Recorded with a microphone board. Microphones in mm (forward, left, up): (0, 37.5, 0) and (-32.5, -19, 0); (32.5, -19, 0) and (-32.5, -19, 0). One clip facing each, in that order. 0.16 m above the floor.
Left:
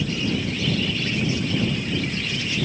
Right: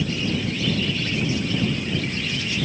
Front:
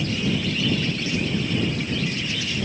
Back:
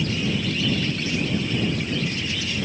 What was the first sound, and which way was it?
Only background noise.